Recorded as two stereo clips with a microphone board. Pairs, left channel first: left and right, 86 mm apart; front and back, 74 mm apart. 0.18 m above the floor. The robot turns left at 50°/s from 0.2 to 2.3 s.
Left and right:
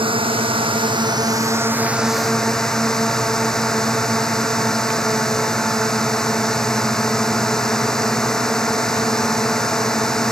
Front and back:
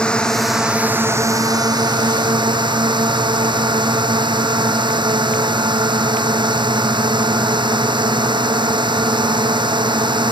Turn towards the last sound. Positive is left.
turn(degrees=175)